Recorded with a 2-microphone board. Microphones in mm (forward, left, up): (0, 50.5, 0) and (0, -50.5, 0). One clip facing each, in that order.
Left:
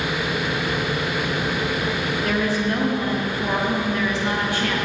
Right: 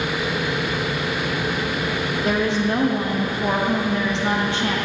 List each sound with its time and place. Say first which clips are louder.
2.2 s a woman speaking: right 2 dB; 25° right (ahead or behind), 0.7 m